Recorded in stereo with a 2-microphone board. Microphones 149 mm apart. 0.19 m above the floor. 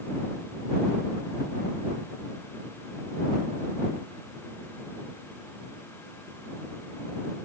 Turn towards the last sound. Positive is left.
No sound to turn to.